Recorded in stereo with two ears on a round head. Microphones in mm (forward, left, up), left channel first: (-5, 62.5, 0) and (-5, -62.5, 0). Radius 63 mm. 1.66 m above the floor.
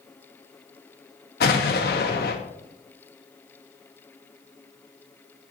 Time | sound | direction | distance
1.4 | an explosion | 75° left (ahead or behind) | 1.3 m